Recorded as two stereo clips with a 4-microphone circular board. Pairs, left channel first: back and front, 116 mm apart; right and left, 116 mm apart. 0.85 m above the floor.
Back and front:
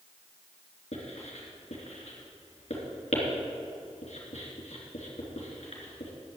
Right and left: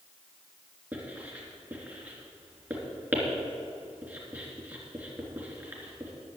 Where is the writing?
165° left, 3 m.